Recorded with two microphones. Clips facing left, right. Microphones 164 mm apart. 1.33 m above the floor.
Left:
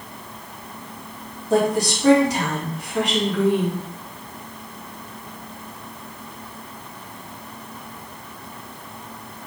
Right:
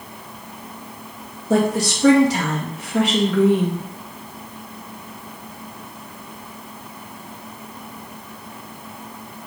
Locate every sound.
1.5 s a woman speaking: 70° right (ahead or behind), 2.0 m